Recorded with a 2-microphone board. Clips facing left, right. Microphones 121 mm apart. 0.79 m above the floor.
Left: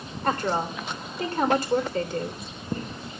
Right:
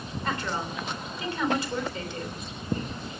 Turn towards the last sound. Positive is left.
turn(degrees=50)  # may be behind; listen again after turning